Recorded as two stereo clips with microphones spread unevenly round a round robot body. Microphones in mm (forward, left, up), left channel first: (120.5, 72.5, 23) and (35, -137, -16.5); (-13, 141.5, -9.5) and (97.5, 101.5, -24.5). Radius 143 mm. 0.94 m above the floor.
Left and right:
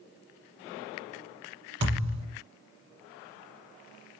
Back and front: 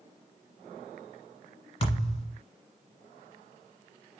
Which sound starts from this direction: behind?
A thud, at 1.8 s.